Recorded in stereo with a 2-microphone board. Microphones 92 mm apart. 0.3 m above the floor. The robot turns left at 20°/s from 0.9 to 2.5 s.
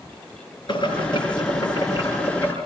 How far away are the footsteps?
I don't hear footsteps.